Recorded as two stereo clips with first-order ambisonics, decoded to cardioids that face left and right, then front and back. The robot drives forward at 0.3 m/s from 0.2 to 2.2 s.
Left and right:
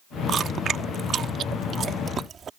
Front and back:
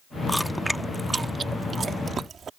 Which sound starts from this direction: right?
Chewing, at 0.3 s.